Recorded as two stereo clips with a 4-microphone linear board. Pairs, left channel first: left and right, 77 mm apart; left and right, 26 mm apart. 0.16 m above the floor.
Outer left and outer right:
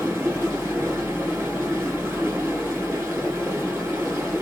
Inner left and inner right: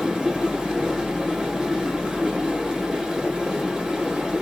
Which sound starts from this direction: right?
Running water, at 0.0 s.